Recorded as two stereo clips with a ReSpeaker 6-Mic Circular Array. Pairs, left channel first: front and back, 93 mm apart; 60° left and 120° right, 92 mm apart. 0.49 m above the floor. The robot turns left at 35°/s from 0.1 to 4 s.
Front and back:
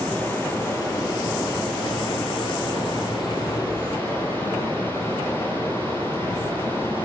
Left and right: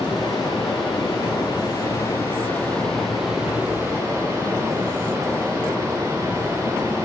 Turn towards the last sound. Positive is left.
turn(degrees=-60)